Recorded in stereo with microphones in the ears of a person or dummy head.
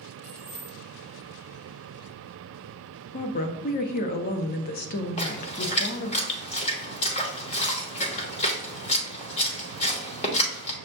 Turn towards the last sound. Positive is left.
turn(degrees=30)  # may be behind; listen again after turning